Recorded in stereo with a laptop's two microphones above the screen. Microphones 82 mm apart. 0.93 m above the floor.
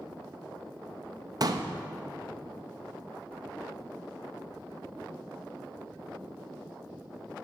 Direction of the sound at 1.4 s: 50° right (ahead or behind).